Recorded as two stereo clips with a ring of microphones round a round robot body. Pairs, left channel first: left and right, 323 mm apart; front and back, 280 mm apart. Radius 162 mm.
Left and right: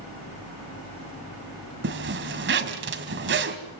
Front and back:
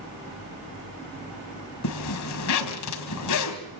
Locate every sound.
1.8 s a zipper: 35° right, 1.7 m